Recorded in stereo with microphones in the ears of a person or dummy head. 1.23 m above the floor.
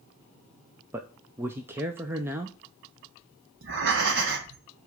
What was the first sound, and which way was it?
A man speaking, 10° right (ahead or behind).